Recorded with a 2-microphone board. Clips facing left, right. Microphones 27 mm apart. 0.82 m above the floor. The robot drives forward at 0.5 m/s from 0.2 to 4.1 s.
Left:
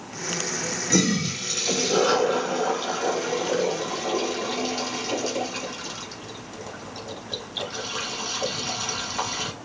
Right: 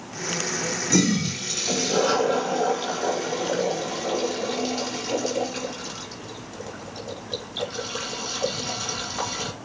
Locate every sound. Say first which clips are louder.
0.9 s a toilet flushing: even; 5° left (ahead or behind), 1.6 m